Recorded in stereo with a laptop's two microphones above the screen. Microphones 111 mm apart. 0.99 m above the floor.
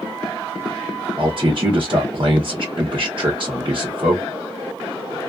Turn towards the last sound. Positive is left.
turn(degrees=-50)  # may be behind; listen again after turning